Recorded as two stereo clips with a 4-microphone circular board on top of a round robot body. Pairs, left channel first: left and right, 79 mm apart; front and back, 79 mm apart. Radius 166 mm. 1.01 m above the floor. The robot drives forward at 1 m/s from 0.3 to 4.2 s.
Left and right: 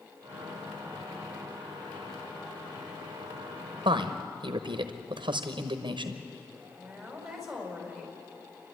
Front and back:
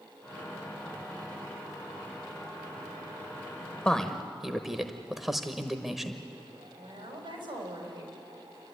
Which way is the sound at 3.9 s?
75° right.